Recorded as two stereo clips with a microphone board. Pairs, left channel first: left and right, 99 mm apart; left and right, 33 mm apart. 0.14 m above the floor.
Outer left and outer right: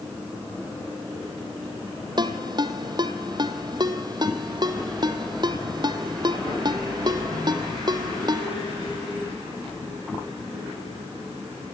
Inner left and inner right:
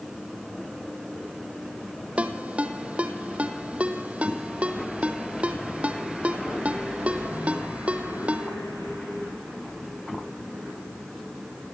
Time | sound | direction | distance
2.2 | a ringtone | 45° right (ahead or behind) | 2 m